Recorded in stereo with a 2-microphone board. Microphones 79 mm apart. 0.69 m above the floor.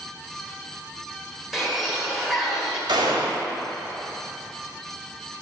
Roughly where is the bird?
Centre.